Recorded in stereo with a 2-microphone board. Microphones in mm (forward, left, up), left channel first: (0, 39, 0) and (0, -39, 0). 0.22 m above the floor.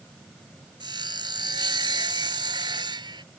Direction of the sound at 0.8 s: 75° right (ahead or behind).